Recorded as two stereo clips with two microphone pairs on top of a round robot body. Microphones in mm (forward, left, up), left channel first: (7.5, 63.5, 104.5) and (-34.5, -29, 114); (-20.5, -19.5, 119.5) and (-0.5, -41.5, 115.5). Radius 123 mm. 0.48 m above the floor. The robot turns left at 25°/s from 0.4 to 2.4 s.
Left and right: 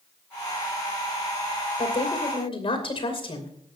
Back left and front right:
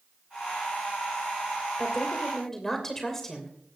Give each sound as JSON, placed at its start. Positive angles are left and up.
{"t": 1.8, "sound": "a woman speaking", "azimuth_deg": 65, "distance_m": 3.0}